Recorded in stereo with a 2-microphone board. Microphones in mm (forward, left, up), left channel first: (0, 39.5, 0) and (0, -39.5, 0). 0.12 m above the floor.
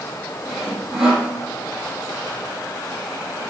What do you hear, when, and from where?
0.5 s sawing: 10° right (ahead or behind), 5 m